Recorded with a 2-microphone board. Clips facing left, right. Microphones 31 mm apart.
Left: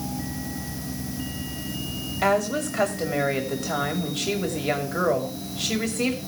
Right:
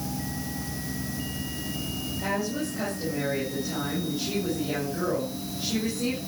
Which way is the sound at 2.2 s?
80° left.